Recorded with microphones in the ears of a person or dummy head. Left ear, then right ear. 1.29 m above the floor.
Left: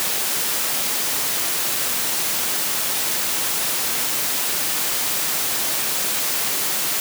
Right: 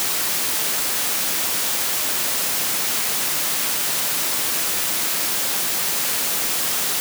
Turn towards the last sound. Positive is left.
No sound to turn to.